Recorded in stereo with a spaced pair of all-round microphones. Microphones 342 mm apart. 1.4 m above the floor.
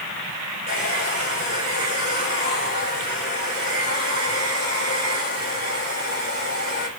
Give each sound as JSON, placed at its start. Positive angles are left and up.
{"t": 0.7, "sound": "a hair dryer", "side_deg": 25, "distance_m": 5.5}